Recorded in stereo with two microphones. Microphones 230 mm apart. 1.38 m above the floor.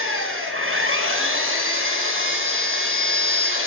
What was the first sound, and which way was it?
An engine running, 55° right (ahead or behind).